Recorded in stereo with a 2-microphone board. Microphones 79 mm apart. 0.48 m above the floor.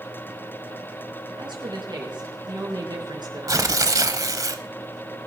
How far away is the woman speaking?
About 5 m.